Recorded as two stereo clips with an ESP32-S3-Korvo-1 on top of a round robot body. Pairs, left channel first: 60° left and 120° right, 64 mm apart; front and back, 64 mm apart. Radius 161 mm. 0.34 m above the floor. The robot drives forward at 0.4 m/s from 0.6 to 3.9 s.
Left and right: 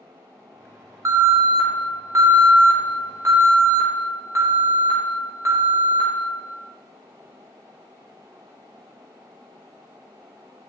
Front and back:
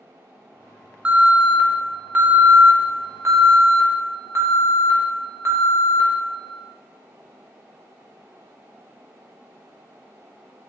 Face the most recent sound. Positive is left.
turn(degrees=-145)